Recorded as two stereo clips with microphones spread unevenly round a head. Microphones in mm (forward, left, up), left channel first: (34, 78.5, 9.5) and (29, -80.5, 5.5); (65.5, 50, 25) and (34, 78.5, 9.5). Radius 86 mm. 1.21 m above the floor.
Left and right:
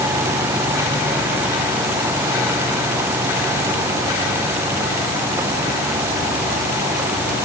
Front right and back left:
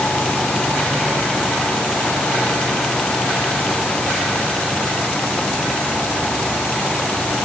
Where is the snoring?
No snoring in this recording.